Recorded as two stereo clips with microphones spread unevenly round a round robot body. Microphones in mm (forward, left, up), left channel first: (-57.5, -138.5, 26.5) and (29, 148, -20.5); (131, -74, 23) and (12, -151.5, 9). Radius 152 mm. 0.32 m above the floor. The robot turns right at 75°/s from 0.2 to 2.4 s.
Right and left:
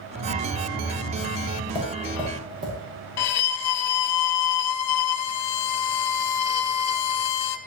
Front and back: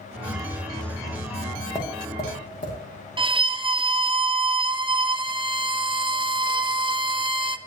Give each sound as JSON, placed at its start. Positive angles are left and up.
{"t": 0.2, "sound": "a hiss", "azimuth_deg": -95, "distance_m": 4.0}
{"t": 1.8, "sound": "tapping", "azimuth_deg": -35, "distance_m": 6.0}
{"t": 3.2, "sound": "a violin", "azimuth_deg": -95, "distance_m": 0.9}